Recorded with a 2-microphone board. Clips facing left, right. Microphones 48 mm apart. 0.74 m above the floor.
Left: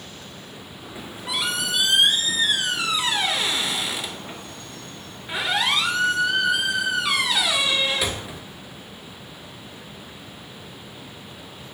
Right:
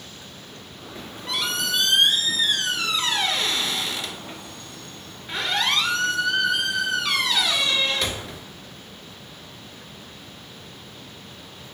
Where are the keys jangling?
No keys jangling in this recording.